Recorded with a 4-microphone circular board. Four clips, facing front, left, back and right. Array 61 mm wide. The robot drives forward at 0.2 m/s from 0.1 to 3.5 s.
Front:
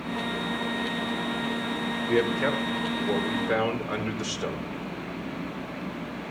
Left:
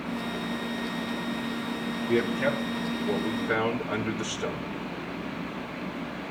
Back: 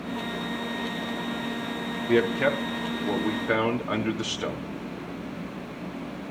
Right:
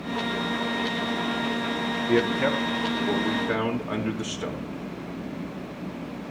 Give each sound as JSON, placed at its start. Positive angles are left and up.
{"t": 2.1, "sound": "a man speaking", "azimuth_deg": -155, "distance_m": 3.0}